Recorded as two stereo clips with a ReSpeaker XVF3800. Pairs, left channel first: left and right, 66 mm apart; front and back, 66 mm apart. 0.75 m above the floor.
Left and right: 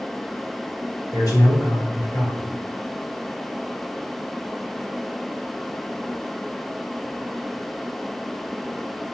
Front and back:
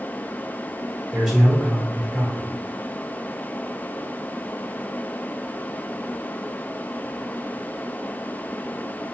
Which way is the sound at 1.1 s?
95° left.